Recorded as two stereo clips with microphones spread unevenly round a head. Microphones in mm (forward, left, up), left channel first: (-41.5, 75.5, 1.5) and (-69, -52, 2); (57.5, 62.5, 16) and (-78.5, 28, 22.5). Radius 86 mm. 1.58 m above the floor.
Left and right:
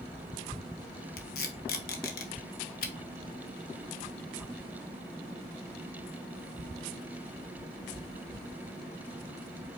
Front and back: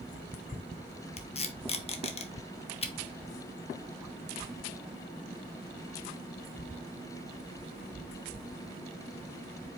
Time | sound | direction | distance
1.2 | tape being pulled | 60° left | 1.2 m